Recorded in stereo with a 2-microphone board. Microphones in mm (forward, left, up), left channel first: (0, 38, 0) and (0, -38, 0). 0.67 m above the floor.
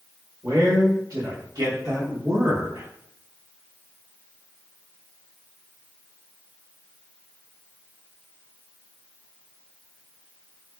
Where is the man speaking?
50° right (ahead or behind), 1.8 m; by 2.9 s 45° right (ahead or behind), 0.9 m.